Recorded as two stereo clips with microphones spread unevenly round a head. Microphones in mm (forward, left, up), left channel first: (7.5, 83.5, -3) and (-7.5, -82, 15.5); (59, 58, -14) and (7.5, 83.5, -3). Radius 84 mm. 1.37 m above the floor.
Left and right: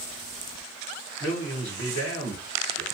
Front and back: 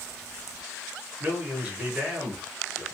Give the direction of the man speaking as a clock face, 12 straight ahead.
9 o'clock.